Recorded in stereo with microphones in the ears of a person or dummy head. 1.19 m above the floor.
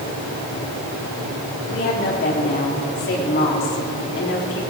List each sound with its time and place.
1.7 s a woman speaking: 60° left (ahead or behind), 3 m